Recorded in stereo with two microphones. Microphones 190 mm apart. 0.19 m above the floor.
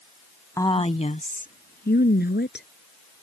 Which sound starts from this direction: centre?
A woman speaking, at 0.6 s.